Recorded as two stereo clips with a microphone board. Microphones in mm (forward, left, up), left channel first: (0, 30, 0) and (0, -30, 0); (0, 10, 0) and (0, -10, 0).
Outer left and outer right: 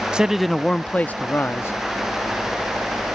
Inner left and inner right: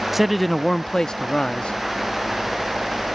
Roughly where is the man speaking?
Centre.